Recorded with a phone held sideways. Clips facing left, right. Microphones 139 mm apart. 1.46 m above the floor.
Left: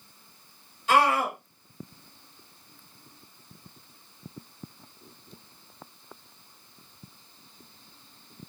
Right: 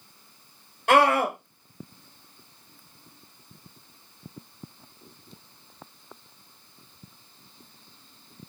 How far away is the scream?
About 0.9 m.